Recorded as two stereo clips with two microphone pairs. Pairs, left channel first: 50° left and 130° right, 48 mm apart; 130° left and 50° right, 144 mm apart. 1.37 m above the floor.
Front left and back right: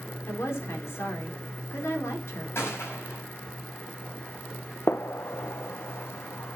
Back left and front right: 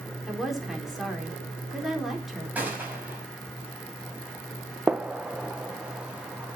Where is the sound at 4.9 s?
30° left, 0.9 m.